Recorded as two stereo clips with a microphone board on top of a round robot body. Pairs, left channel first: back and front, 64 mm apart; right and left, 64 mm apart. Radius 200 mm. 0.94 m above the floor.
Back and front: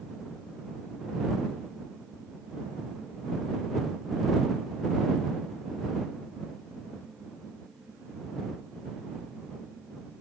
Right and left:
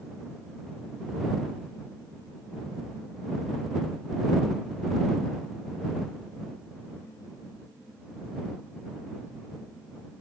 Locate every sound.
Only background noise.